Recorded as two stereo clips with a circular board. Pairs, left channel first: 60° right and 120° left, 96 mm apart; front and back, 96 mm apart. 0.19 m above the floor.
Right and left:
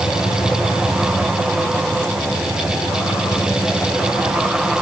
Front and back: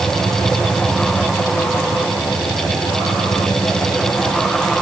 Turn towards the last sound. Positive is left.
No sound to turn to.